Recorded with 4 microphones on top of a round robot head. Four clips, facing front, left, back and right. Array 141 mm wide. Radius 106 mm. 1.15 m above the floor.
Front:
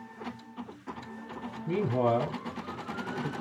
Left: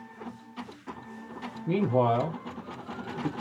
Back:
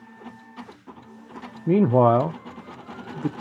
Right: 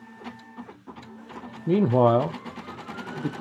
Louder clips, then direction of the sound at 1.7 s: Right 5 dB, back 10 dB; 155° right.